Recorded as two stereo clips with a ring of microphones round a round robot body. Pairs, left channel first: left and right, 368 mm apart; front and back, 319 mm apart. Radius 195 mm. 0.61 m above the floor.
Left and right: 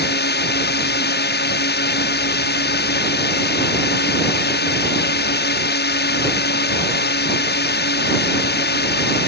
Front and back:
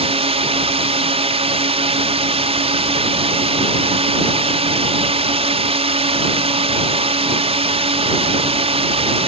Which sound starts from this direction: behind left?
A drone, at 0.0 s.